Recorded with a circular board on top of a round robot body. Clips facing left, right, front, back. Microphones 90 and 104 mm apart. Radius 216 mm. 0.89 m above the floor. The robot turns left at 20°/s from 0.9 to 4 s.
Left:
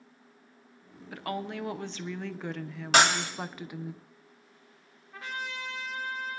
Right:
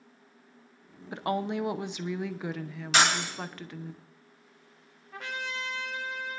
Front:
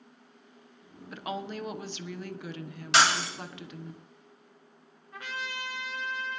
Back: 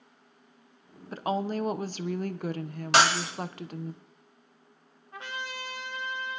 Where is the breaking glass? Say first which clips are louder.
Left 2 dB, back 1 dB; 135° left, 1.7 m; by 3.3 s 125° left, 1.7 m.